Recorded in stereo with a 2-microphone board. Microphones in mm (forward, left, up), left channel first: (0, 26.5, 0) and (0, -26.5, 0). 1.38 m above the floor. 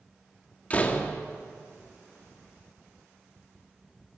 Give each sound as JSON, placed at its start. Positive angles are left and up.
{"t": 0.7, "sound": "a door slam", "side_deg": 30, "distance_m": 1.7}